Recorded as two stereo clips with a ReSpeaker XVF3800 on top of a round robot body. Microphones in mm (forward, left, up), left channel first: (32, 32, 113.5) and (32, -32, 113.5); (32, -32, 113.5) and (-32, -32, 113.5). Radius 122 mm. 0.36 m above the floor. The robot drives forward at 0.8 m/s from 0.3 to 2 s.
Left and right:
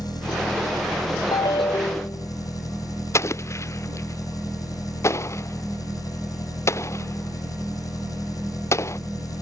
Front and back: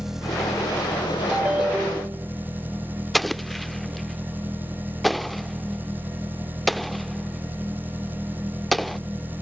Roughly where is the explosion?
Left.